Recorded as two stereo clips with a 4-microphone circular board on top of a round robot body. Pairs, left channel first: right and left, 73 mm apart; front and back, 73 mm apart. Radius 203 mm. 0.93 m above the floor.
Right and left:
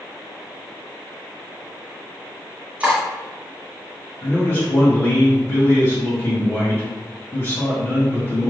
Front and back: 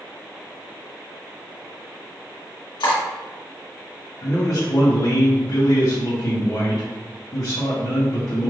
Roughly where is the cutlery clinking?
Ahead.